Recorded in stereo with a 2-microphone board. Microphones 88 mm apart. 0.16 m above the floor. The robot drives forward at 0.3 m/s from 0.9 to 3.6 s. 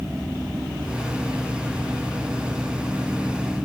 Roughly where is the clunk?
I don't hear a clunk.